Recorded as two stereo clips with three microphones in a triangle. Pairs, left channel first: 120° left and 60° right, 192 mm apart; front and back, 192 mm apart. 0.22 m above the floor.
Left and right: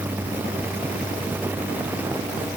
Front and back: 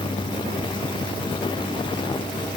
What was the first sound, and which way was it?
Only background noise.